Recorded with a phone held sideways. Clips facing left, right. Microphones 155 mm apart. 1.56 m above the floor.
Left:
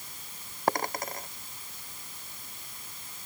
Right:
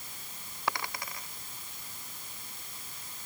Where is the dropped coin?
45° left (ahead or behind).